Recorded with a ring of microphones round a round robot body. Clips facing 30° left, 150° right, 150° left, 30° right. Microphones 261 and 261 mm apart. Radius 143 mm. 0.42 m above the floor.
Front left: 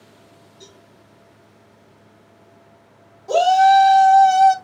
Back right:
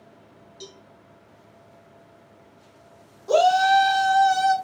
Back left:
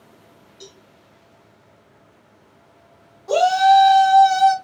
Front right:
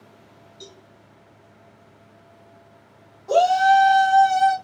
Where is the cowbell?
115° right, 1.6 m.